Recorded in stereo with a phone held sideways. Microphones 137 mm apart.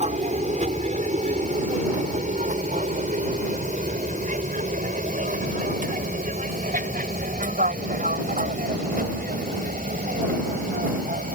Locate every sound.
0.0 s an aircraft: 55° right (ahead or behind); by 11.3 s 70° right (ahead or behind)